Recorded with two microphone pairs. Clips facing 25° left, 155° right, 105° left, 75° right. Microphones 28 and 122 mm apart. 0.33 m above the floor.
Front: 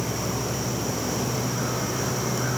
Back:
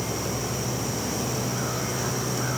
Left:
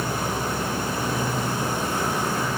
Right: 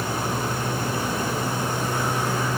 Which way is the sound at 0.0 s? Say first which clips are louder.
Front 1 dB, even; 15° left.